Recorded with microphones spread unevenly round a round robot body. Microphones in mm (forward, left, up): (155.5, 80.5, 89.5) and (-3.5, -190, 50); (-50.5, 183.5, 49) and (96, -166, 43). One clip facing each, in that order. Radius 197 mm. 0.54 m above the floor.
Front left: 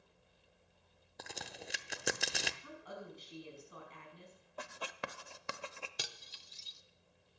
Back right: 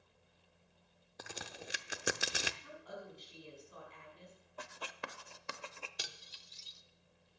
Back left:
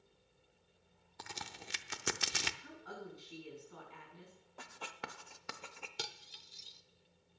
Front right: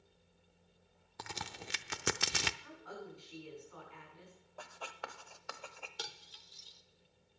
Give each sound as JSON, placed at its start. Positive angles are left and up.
{"t": 1.2, "sound": "a crack", "azimuth_deg": -35, "distance_m": 0.7}
{"t": 2.6, "sound": "a woman speaking", "azimuth_deg": 50, "distance_m": 5.5}
{"t": 4.6, "sound": "writing", "azimuth_deg": 50, "distance_m": 0.6}
{"t": 6.0, "sound": "cutlery clinking", "azimuth_deg": 55, "distance_m": 0.8}